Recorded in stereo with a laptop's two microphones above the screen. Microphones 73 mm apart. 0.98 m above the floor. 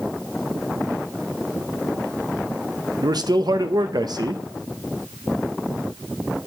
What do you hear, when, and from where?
3.0 s a man speaking: 65° right (ahead or behind), 0.7 m